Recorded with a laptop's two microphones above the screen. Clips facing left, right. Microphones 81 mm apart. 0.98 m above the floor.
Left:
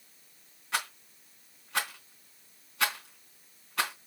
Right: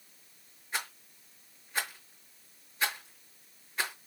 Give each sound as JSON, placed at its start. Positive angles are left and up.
{"t": 0.7, "sound": "a rattle", "side_deg": 80, "distance_m": 4.0}